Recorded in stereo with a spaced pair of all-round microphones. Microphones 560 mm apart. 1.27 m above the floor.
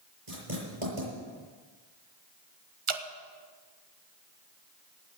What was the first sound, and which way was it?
Writing, 60° right (ahead or behind).